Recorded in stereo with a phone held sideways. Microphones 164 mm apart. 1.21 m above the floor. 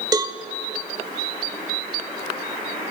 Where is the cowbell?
20° right (ahead or behind), 1.0 m.